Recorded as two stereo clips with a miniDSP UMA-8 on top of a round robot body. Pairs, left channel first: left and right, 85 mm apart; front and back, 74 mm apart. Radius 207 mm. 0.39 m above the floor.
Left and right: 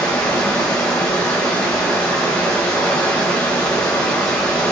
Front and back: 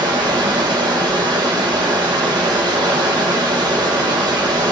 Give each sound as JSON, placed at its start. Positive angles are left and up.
{"t": 0.0, "sound": "running water", "azimuth_deg": 170, "distance_m": 0.8}